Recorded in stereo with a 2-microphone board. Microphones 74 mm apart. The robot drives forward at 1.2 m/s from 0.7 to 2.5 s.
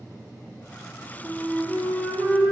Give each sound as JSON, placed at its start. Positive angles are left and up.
{"t": 1.2, "sound": "a flute", "side_deg": 20, "distance_m": 1.2}